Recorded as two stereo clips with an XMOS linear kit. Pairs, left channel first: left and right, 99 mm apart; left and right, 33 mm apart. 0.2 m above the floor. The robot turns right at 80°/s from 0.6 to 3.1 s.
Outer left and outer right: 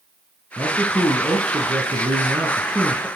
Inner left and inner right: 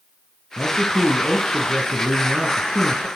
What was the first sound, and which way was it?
A man speaking, 165° left.